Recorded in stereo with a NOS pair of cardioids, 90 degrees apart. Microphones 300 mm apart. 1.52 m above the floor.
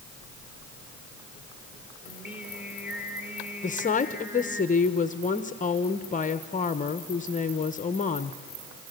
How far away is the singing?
About 3.5 m.